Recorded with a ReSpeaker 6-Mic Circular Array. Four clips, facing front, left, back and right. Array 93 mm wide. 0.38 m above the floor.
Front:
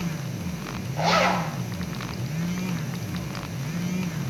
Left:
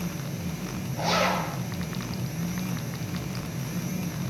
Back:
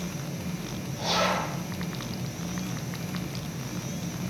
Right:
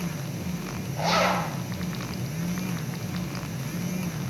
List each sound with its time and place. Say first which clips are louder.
1.0 s a zipper: right 2 dB, front 5 dB; 5° right, 2.5 m